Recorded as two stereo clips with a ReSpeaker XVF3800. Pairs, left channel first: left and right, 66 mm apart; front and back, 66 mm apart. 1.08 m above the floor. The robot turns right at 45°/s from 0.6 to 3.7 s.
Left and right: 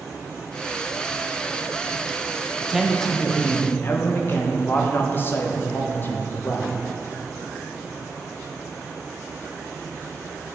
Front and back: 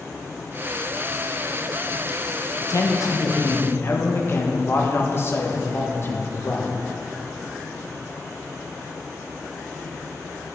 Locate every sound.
2.6 s a man speaking: 10° right, 0.8 m; by 6.7 s 40° left, 0.8 m